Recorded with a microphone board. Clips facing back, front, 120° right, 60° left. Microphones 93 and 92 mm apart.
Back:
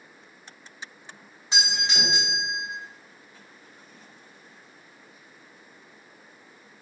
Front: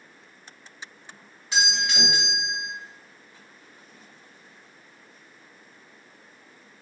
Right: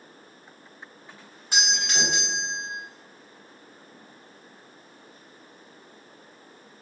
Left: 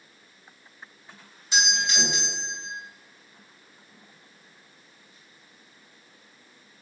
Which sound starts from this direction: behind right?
A doorbell, at 1.5 s.